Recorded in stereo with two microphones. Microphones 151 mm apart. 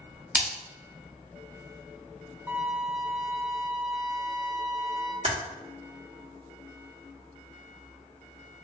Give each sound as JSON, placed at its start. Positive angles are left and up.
{"t": 0.3, "sound": "a splash", "side_deg": -10, "distance_m": 0.7}
{"t": 2.5, "sound": "a violin", "side_deg": -20, "distance_m": 0.5}
{"t": 5.2, "sound": "typing on a keyboard", "side_deg": -45, "distance_m": 1.4}